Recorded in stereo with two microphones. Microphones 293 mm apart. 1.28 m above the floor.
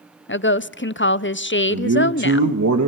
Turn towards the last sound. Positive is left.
turn(degrees=-80)